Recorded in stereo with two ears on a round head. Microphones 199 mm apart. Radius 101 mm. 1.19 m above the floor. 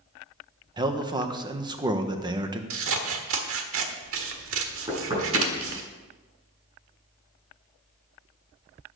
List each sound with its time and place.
0.8 s a man speaking: 20° right (ahead or behind), 1.3 m
2.7 s scissors: 65° right (ahead or behind), 1.5 m
4.9 s knocking: 25° right (ahead or behind), 6.5 m